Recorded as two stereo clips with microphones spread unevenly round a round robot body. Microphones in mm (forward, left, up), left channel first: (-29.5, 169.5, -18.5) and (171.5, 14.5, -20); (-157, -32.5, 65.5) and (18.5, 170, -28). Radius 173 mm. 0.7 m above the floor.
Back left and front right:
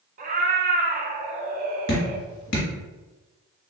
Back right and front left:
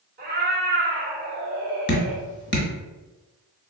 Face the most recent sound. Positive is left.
turn(degrees=-170)